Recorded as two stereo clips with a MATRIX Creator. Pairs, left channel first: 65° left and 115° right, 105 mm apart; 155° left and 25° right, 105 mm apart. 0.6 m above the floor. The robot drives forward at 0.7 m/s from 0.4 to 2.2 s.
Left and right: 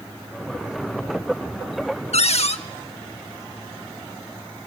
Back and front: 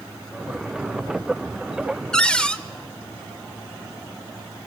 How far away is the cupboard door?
About 0.8 m.